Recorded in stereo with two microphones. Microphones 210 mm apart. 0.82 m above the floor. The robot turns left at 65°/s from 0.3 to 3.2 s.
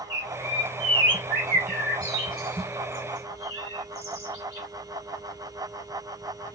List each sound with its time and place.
0.1 s a bird: 45° right (ahead or behind), 2 m; by 4.7 s 55° left (ahead or behind), 2 m